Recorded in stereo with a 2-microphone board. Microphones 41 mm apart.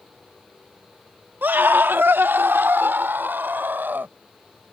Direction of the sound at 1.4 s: 55° right (ahead or behind).